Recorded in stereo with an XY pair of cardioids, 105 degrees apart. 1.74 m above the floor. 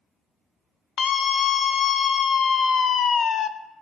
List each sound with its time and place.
1.0 s a scream: 50° left, 1.2 m